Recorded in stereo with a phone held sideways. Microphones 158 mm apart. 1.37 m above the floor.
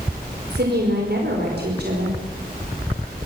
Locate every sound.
0.5 s a woman speaking: 80° right, 5 m